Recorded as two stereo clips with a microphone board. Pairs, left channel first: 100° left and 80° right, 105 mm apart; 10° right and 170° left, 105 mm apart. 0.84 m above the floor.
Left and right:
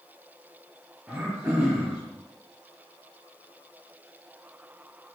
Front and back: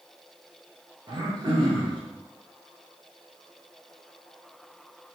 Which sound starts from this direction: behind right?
Throat clearing, at 1.1 s.